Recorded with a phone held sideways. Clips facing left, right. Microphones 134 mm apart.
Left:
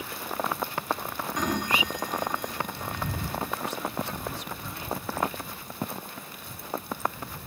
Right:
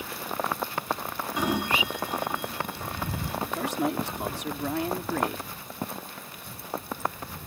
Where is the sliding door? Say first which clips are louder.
Right 1 dB; 10° right (ahead or behind).